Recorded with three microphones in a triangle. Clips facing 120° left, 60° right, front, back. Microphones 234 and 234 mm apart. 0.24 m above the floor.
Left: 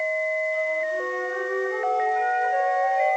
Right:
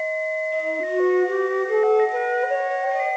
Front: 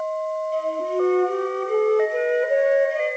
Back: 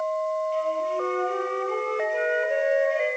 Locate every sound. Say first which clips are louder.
0.5 s a flute: right 5 dB, front 4 dB; 50° right, 2.5 m